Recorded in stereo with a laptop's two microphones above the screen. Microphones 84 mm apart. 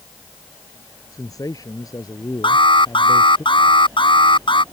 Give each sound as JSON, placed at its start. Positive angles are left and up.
{"t": 1.1, "sound": "a man speaking", "side_deg": 45}
{"t": 2.4, "sound": "an alarm", "side_deg": 75}